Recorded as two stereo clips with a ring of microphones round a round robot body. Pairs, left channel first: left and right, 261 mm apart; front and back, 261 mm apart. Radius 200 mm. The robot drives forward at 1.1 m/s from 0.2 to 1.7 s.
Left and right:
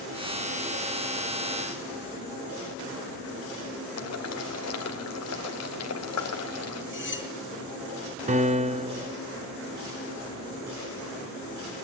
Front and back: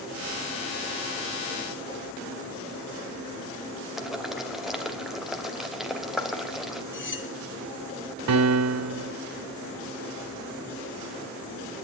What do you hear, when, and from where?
4.0 s boiling: 90° left, 2.5 m
6.9 s cutlery clinking: 45° left, 2 m
8.3 s a piano: 155° right, 0.8 m